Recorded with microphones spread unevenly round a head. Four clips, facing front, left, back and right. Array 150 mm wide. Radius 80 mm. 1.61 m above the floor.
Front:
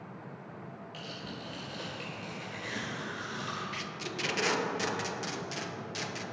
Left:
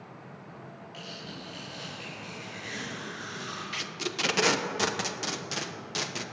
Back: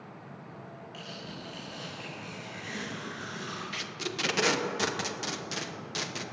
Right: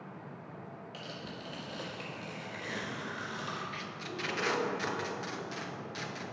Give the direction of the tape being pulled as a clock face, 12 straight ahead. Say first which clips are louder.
Left 5 dB, back 2 dB; 8 o'clock.